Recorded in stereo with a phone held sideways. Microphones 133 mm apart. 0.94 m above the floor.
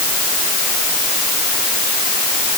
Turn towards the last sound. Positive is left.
No sound to turn to.